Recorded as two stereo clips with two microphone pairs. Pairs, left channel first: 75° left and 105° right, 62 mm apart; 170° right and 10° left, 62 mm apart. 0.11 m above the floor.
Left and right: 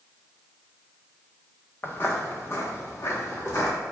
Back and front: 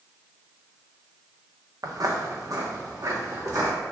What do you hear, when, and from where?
1.8 s footsteps: 20° left, 0.6 m; by 3.7 s 30° left, 1.7 m